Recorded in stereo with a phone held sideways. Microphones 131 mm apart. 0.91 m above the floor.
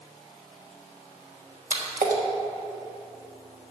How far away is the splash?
About 1.3 m.